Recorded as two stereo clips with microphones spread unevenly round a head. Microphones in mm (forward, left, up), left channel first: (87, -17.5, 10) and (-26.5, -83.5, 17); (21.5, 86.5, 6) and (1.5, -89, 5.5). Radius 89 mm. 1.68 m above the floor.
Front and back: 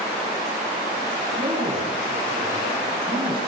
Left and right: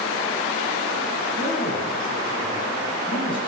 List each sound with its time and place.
1.4 s a man speaking: 145° left, 9.5 m